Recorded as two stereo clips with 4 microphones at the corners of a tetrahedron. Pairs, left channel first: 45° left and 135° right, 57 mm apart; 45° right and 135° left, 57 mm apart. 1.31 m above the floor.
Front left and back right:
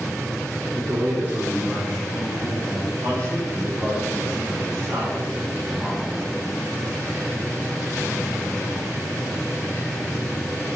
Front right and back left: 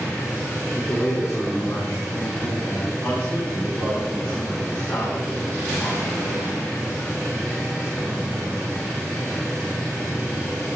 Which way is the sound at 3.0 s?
95° right.